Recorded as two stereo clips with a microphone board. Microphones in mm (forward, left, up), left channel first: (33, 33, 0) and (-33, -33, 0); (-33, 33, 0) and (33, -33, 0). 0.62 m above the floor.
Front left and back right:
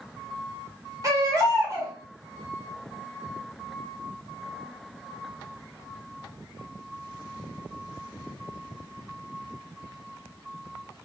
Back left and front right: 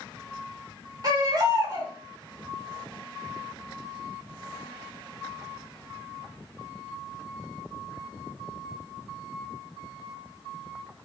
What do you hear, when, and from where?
1.0 s a baby crying: 90° right, 1.8 m